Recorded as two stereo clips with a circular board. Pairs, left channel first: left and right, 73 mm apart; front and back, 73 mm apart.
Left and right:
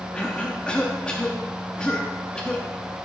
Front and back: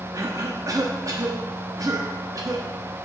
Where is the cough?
165° left, 0.9 m.